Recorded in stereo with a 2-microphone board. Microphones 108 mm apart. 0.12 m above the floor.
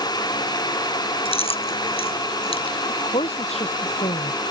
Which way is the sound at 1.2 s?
65° left (ahead or behind).